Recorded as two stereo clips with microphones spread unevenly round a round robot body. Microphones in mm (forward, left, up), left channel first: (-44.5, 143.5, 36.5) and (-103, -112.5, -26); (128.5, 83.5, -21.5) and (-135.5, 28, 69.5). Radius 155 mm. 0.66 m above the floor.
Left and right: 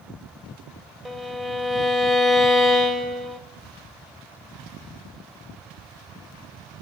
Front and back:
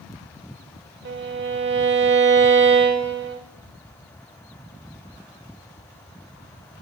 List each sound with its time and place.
1.1 s a violin: 160° left, 0.6 m